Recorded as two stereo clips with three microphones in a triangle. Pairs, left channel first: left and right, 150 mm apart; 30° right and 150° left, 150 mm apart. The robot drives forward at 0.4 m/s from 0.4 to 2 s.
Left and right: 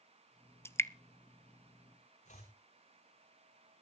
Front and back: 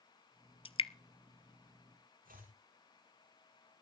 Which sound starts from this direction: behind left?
Chopping, at 2.2 s.